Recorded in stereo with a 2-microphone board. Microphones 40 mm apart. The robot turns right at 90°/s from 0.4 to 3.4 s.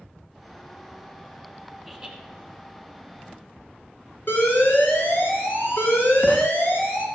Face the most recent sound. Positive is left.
turn(degrees=65)  # may be behind; listen again after turning